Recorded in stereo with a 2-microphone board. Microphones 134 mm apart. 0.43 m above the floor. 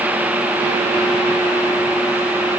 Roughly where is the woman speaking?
I don't hear a woman speaking.